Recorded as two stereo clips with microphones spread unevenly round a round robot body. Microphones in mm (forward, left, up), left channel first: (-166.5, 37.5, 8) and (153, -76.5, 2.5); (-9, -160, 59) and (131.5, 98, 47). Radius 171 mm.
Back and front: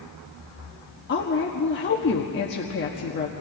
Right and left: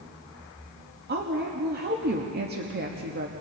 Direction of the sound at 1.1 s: 110° left.